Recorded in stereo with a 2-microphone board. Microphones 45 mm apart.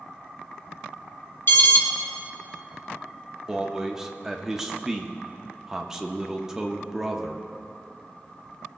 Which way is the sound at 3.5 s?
10° right (ahead or behind).